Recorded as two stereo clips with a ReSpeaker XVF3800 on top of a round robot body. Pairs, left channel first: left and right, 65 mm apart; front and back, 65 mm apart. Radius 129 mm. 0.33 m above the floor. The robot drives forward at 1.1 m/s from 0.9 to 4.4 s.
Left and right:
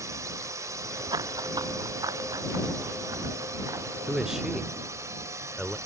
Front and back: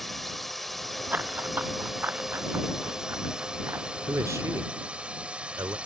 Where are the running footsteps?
115° right; by 3.9 s 130° right.